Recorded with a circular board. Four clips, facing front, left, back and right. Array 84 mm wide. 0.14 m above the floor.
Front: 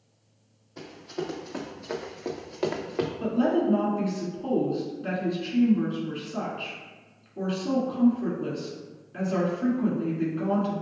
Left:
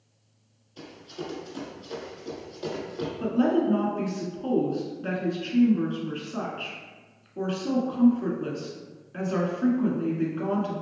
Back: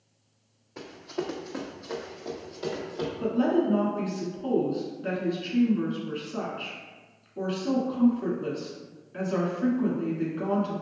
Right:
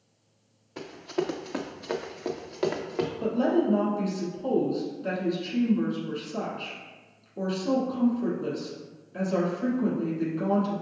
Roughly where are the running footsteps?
Right.